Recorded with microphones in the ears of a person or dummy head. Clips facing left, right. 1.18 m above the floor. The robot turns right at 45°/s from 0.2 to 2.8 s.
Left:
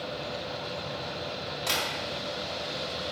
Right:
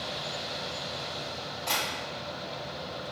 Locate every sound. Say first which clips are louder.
1.7 s tapping: even; 70° left (ahead or behind), 1.7 m; by 1.8 s 75° left (ahead or behind), 1.7 m